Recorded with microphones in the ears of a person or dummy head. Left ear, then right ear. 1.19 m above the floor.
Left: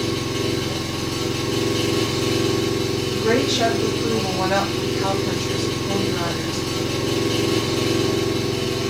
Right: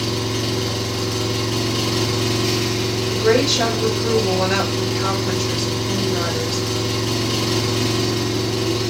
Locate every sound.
0.0 s an engine running: 15° right (ahead or behind), 3.5 m
3.1 s a woman speaking: 30° right (ahead or behind), 4 m